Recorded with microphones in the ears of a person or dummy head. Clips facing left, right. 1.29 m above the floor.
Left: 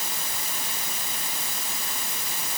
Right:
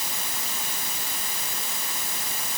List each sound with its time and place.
Only background noise.